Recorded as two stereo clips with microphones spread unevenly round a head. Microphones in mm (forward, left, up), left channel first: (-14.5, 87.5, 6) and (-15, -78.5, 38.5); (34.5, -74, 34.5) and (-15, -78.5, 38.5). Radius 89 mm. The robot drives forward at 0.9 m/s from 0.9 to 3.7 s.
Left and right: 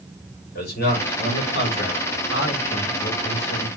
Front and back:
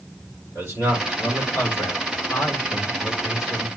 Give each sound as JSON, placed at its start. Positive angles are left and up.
{"t": 0.6, "sound": "a man speaking", "azimuth_deg": 55, "distance_m": 5.0}